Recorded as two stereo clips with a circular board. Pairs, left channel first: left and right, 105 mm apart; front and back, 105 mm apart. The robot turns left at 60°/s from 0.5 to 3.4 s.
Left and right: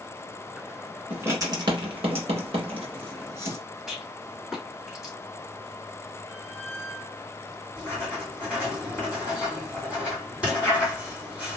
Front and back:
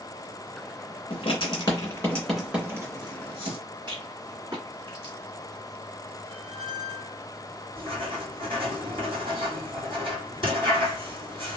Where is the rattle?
175° right, 1.7 m.